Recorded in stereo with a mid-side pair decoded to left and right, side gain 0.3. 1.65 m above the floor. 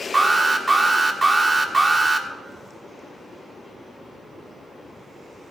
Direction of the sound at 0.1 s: 40° right.